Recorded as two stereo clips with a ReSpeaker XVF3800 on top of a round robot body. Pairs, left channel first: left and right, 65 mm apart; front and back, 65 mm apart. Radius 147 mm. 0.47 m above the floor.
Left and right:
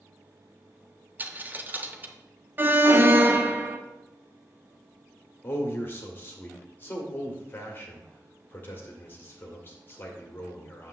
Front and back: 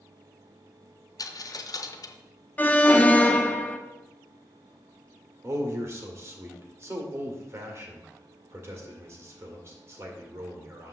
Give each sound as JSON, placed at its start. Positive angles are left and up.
{"t": 1.2, "sound": "a dropped coin", "azimuth_deg": -30, "distance_m": 0.8}
{"t": 2.6, "sound": "an alarm", "azimuth_deg": -55, "distance_m": 1.0}
{"t": 5.4, "sound": "a man speaking", "azimuth_deg": 140, "distance_m": 1.9}